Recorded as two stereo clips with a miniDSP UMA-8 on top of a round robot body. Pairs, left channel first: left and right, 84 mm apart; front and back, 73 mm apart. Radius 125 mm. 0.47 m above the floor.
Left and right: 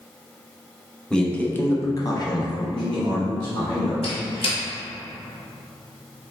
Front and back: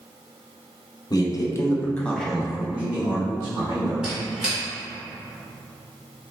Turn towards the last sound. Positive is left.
turn(degrees=100)